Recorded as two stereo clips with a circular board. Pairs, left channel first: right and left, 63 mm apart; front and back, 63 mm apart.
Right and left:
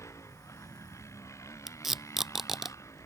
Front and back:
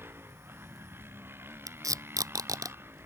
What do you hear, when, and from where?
0.0 s a motorcycle: 125° right
1.7 s tape being pulled: 175° left